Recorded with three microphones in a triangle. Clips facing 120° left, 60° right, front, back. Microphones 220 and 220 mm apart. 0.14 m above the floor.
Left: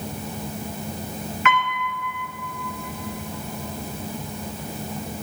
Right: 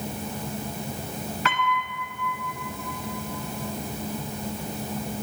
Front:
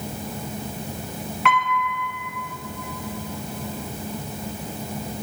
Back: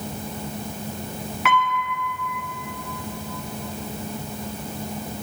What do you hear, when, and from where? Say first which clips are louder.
1.4 s a piano: left 5 dB, even; 95° right, 1.4 m